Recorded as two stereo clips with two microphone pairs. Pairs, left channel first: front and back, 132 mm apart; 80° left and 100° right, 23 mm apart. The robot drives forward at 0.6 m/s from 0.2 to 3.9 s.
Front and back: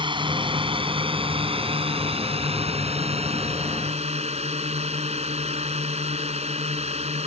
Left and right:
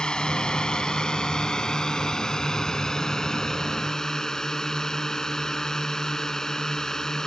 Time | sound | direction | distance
0.0 | a drone | 135° left | ?